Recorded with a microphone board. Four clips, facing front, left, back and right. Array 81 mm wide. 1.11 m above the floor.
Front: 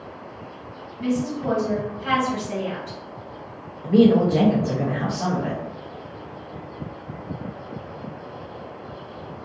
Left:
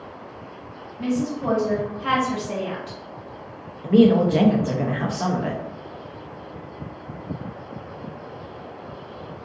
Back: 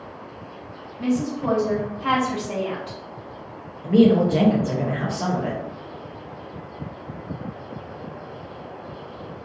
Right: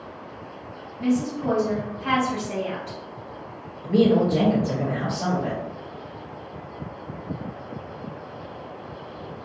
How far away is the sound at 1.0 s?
About 1.4 m.